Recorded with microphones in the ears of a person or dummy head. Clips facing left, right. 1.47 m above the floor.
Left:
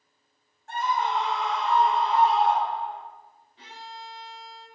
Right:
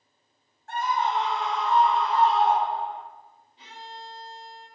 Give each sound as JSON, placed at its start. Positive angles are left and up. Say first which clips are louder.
{"t": 0.7, "sound": "a scream", "louder": "right 1 dB", "side_deg": 65, "distance_m": 1.2}
{"t": 3.6, "sound": "a violin", "louder": "even", "side_deg": 35, "distance_m": 0.8}